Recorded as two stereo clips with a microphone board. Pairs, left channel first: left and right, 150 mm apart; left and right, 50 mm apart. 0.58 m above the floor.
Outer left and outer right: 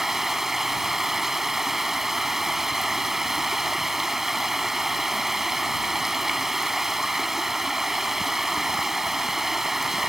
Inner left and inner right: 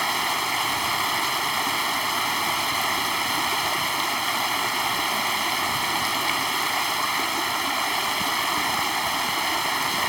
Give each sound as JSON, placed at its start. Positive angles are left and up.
{"t": 0.0, "sound": "running water", "side_deg": 0}